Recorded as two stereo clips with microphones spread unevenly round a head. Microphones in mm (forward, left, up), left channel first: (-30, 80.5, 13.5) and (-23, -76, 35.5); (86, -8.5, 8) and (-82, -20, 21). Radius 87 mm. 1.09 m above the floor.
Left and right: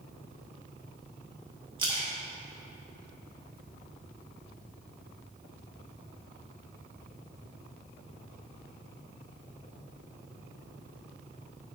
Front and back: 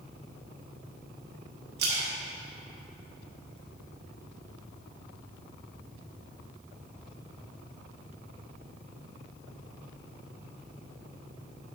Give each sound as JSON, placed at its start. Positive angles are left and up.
{"t": 1.8, "sound": "a splash", "azimuth_deg": -150, "distance_m": 1.8}